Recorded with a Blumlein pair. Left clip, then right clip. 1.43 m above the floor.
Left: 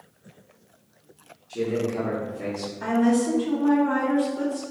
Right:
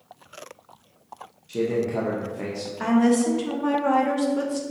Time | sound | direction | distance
1.5 | a man speaking | 45° right | 0.8 m
2.8 | a woman speaking | 45° right | 1.1 m